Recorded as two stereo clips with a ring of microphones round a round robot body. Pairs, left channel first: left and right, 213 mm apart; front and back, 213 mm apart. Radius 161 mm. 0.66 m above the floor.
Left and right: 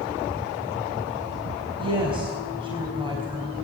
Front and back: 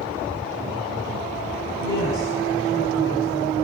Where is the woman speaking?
25° right, 5 m.